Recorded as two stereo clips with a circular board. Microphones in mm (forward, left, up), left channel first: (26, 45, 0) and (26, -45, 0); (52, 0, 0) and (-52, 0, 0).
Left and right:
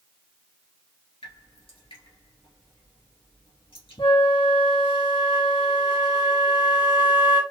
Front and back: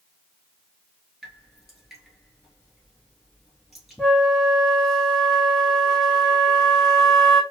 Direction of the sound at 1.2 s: 95° left.